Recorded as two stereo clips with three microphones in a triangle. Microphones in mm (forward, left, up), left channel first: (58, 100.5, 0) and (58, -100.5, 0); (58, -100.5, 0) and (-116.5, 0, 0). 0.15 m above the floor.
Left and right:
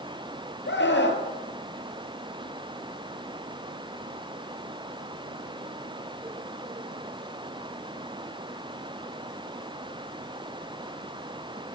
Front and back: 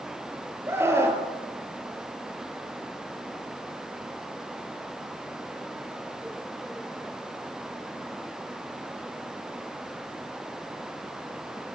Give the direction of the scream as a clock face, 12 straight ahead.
10 o'clock.